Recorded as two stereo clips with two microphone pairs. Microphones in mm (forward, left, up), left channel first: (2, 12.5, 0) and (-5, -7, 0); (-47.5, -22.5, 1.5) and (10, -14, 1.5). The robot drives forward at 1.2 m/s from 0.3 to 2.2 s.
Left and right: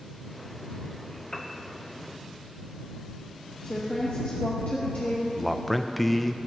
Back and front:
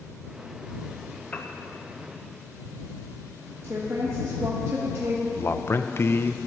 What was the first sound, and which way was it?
A piano, 130° left.